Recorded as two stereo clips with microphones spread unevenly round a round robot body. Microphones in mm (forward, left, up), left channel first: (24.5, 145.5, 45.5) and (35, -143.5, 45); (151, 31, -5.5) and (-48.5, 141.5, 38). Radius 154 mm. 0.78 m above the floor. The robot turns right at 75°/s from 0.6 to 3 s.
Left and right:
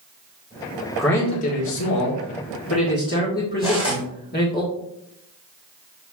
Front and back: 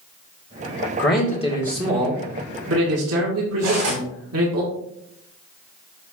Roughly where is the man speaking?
Ahead.